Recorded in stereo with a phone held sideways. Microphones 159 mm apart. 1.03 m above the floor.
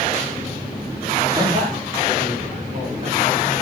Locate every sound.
1.3 s a man speaking: 40° right (ahead or behind), 2.5 m; by 3.4 s 50° right (ahead or behind), 5 m